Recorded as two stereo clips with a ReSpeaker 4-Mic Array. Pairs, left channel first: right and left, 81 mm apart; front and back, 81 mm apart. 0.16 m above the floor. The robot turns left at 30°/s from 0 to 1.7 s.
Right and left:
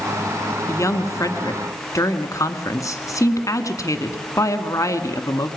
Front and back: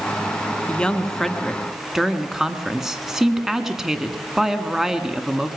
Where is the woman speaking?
65° right, 1.7 m; by 5.5 s 95° right, 1.7 m.